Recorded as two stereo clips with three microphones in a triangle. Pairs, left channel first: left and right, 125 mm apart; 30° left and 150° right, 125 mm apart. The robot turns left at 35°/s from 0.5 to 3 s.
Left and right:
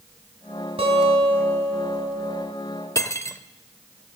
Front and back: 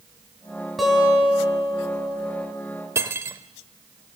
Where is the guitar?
60° right, 2.5 m; by 2.4 s 120° right, 2.5 m.